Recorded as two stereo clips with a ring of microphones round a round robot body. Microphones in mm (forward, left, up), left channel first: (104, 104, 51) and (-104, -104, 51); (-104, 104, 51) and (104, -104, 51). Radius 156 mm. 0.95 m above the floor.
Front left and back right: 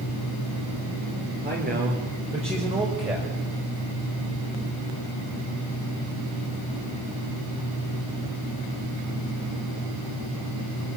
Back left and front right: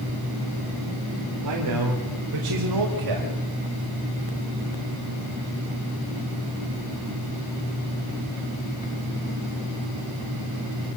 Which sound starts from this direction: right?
A man speaking, at 1.4 s.